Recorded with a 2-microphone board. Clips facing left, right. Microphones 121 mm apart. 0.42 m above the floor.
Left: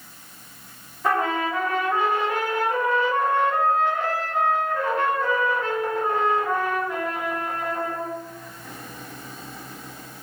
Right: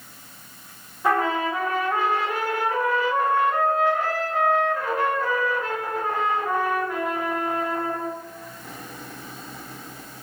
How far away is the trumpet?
About 1.1 m.